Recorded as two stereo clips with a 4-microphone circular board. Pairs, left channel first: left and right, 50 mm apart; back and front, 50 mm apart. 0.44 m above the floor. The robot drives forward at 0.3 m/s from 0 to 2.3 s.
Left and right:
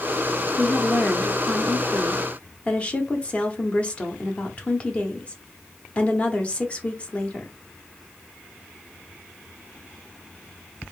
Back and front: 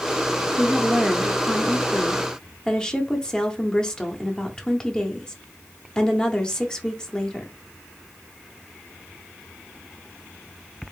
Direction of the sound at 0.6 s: 60° left.